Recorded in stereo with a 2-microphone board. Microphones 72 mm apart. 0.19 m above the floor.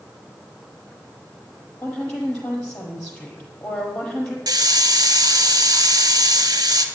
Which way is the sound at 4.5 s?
70° right (ahead or behind).